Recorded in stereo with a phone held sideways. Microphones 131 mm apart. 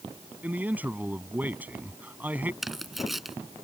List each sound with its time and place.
0.4 s a man speaking: 15° right (ahead or behind)
2.6 s tearing paper: centre (ahead or behind)